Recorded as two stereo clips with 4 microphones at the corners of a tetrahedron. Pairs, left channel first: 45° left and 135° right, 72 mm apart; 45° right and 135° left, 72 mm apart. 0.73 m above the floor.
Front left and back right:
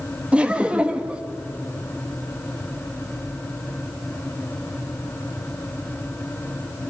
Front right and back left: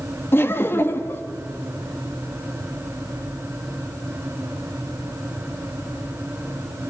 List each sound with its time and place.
0.3 s laughter: 70° right, 1.3 m